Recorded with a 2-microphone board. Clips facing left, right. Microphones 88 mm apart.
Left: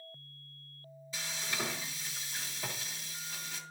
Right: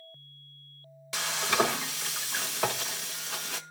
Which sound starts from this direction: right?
Frying, at 1.1 s.